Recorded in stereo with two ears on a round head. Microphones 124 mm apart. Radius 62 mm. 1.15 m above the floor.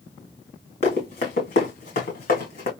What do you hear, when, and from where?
0.8 s running footsteps: 60° left (ahead or behind), 3.5 m; by 2.7 s 65° left (ahead or behind), 3 m